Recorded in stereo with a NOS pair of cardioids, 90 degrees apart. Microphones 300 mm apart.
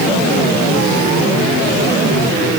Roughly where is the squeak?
No squeak in this recording.